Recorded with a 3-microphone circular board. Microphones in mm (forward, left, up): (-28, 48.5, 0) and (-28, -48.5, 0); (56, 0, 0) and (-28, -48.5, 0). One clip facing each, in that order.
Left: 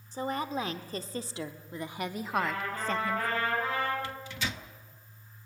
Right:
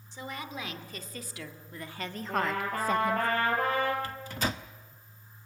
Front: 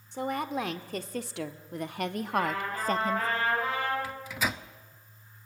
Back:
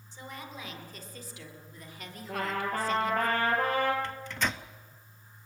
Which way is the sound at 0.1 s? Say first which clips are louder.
Left 7 dB, front 13 dB; 45° left.